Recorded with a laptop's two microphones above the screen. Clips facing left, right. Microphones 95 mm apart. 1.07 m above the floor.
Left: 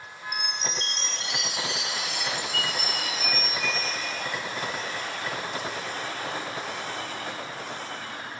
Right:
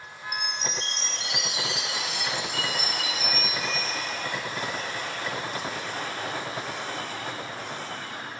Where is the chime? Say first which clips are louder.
Even; centre (ahead or behind), 0.9 m.